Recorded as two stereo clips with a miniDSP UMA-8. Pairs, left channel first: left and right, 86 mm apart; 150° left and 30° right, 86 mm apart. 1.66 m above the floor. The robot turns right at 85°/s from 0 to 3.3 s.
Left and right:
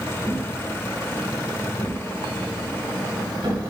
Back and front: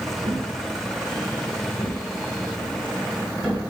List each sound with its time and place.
0.2 s a thud: 15° right, 5 m; by 3.7 s 115° right, 5 m